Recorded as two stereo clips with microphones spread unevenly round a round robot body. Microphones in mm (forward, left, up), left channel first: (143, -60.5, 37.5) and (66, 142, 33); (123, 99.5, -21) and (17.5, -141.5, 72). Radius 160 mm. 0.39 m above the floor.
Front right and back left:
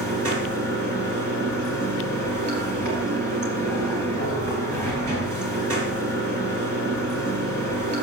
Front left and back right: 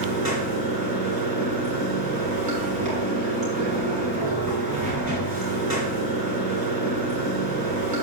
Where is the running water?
175° left, 2.5 m.